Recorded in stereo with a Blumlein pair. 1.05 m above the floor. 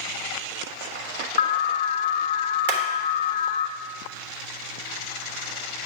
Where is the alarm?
60° left, 0.5 m.